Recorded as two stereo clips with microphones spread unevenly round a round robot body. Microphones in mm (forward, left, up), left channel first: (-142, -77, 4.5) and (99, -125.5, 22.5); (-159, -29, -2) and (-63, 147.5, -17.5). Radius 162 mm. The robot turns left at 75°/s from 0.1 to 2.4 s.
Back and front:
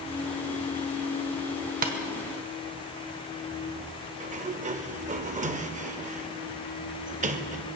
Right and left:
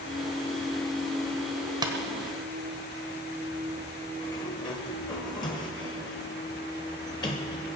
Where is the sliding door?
55° right, 0.8 m.